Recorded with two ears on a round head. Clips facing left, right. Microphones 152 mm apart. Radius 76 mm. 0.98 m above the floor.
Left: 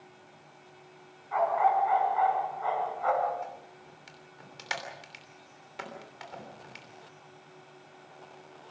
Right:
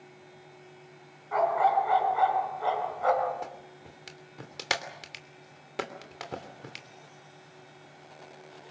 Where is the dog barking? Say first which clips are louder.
Right 1 dB; 45° right (ahead or behind), 4 m.